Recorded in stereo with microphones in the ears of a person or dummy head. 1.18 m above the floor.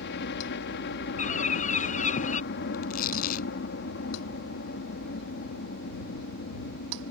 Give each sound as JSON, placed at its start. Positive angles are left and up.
{"t": 0.0, "sound": "a helicopter", "side_deg": 55}
{"t": 1.2, "sound": "a bird", "side_deg": 40}
{"t": 2.7, "sound": "tearing paper", "side_deg": 50}